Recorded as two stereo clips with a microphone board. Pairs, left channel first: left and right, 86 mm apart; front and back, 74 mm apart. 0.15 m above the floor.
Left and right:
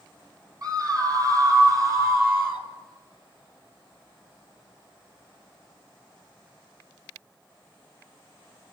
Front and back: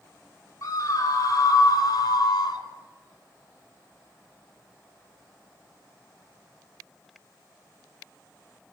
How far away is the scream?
About 4.5 m.